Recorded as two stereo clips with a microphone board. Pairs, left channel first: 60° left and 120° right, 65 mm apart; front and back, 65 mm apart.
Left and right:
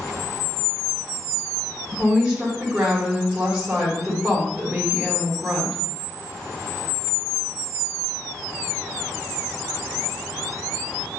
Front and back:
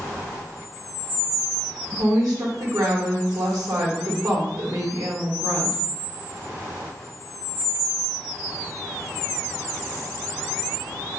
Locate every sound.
1.9 s a woman speaking: 175° left, 1.7 m